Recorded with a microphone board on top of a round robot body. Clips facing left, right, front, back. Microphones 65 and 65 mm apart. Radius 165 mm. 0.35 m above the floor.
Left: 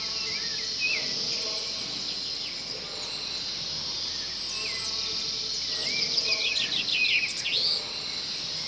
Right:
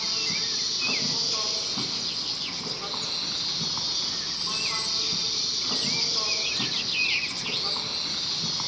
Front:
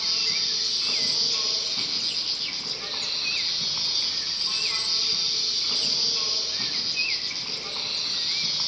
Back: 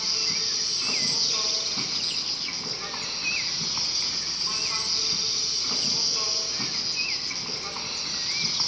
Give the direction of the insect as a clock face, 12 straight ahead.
4 o'clock.